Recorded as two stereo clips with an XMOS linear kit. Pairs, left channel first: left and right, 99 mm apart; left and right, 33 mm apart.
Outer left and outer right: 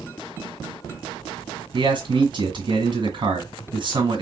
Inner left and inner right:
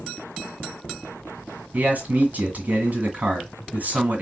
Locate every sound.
1.7 s a man speaking: 55° right (ahead or behind), 2 m